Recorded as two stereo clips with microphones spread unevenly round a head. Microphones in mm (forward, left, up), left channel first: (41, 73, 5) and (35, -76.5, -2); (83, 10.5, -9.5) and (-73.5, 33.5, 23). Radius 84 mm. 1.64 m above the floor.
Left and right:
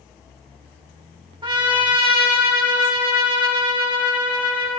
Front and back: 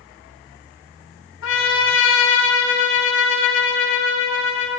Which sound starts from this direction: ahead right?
A trumpet, at 1.4 s.